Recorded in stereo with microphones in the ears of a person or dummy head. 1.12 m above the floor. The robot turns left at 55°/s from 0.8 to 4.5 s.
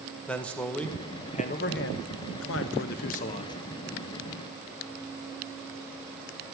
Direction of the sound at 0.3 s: 175° left.